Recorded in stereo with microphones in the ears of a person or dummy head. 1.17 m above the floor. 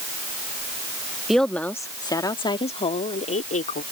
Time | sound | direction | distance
1.3 | a woman speaking | centre (ahead or behind) | ?